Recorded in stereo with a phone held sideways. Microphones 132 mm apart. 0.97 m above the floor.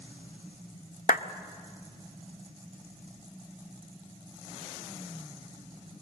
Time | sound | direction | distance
1.1 | a clap | 80° left | 0.7 m